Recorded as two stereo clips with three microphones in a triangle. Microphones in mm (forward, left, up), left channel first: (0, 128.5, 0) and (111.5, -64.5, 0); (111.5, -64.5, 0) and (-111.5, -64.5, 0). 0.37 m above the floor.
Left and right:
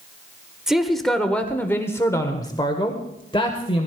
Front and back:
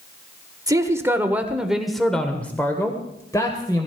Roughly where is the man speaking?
Behind right.